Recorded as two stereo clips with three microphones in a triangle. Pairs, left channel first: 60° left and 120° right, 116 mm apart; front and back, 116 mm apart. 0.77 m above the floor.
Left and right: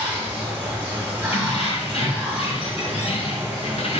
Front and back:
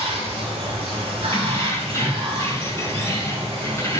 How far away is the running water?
About 1.2 m.